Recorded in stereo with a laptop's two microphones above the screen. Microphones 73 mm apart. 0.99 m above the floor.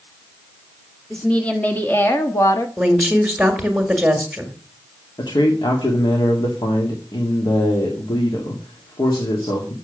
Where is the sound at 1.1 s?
10° left (ahead or behind), 2 m; by 2.7 s 50° left (ahead or behind), 1.5 m.